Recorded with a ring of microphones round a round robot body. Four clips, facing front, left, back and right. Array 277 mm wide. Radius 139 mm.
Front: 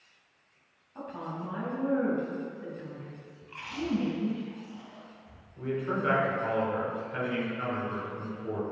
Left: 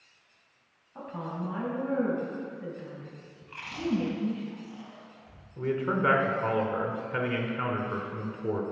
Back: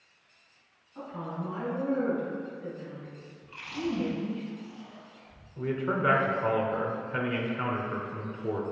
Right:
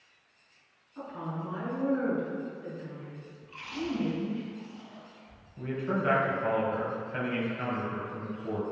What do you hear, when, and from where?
0.9 s a woman speaking: 65° left, 4 m
3.4 s chewing: 70° left, 3 m
5.6 s a man speaking: 115° left, 2.5 m